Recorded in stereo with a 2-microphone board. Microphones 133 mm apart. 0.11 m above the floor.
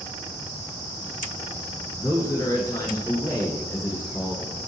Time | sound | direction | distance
2.0 | a man speaking | 25° left (ahead or behind) | 1.2 m